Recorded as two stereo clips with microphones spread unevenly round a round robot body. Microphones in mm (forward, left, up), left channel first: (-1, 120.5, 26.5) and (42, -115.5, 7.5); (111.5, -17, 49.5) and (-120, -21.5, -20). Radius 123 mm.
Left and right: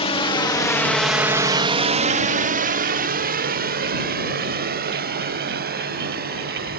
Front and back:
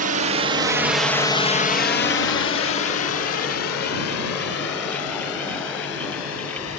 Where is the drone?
165° left; by 6.8 s 25° right.